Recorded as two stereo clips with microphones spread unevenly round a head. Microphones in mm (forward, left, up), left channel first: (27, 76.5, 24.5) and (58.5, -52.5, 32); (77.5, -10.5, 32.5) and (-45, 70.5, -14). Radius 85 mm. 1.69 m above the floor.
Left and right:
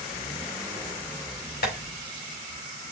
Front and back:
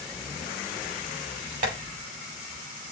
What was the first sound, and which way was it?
Tapping, 110° left.